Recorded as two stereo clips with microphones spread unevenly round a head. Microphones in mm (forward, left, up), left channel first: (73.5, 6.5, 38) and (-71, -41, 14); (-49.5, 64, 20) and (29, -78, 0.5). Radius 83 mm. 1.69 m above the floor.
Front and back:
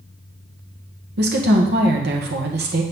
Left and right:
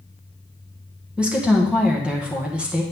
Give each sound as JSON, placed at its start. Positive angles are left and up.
{"t": 1.2, "sound": "a woman speaking", "azimuth_deg": -145, "distance_m": 1.8}